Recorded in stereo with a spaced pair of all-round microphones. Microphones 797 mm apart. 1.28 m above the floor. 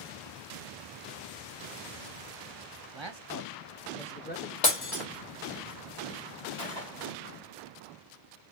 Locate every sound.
2.9 s a man speaking: 40° right (ahead or behind), 0.9 m; by 4.5 s 25° left (ahead or behind), 0.7 m
4.6 s breaking glass: 60° left (ahead or behind), 1.8 m
6.6 s a gunshot: 35° left (ahead or behind), 2.5 m